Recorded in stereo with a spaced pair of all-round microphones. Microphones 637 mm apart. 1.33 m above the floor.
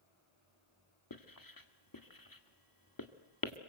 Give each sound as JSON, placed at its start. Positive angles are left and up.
{"t": 1.1, "sound": "writing", "side_deg": 30, "distance_m": 1.7}